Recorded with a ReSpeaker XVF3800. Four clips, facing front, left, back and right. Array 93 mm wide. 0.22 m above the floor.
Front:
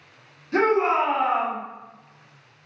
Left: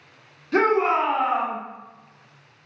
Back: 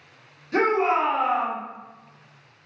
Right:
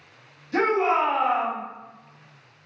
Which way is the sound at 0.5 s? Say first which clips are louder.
Left 2 dB, front 1 dB; 95° left.